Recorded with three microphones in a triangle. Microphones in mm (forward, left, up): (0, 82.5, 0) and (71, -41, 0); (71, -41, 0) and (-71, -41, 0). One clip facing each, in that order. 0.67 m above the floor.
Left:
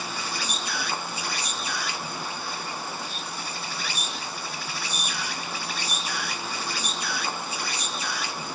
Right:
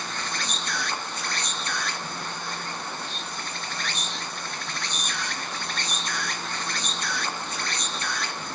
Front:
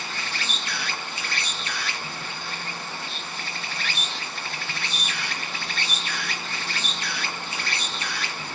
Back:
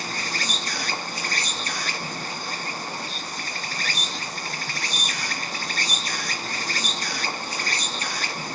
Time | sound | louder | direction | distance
0.0 | an insect | even, back 3 dB | 160° right | 0.8 m